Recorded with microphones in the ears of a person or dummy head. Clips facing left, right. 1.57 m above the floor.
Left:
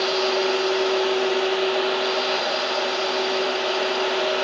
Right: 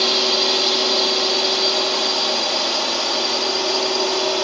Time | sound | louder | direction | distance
0.0 | a drone | left 1 dB | 65° right (ahead or behind) | ?